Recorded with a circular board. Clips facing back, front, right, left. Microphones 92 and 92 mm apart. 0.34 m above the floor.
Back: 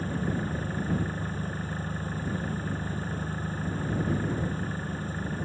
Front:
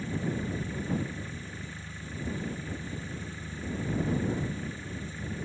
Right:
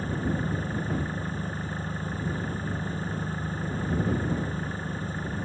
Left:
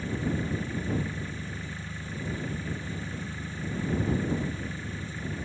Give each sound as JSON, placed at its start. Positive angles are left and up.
{"t": 0.0, "sound": "an engine running", "azimuth_deg": -140}